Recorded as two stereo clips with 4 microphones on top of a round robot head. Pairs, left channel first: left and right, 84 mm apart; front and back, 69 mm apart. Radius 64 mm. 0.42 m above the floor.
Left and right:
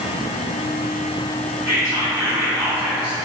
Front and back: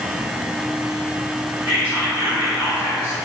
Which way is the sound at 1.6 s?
145° right.